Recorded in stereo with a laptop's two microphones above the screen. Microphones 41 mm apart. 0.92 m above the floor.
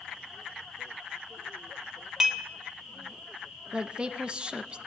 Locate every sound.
2.2 s dishes clattering: 15° right (ahead or behind), 0.7 m
3.7 s a woman speaking: 25° right (ahead or behind), 0.6 m